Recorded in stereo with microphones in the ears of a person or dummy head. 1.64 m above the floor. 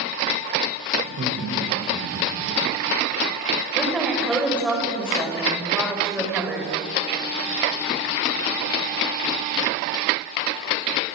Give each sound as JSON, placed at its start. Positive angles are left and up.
{"t": 1.0, "sound": "laughter", "side_deg": -45, "distance_m": 6.5}
{"t": 3.8, "sound": "a woman speaking", "side_deg": 0, "distance_m": 6.0}